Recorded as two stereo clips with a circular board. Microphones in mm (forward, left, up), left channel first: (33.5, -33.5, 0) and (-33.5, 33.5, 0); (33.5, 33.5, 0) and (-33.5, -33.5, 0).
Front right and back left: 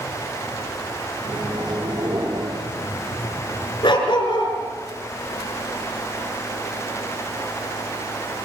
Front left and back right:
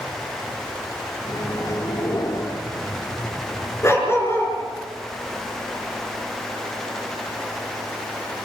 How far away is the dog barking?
About 7 m.